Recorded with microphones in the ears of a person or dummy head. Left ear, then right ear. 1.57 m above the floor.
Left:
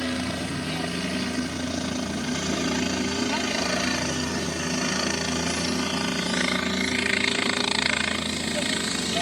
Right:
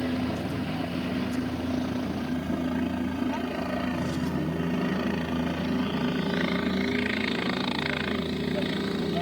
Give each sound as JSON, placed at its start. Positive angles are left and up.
{"t": 0.0, "sound": "a helicopter", "side_deg": 60}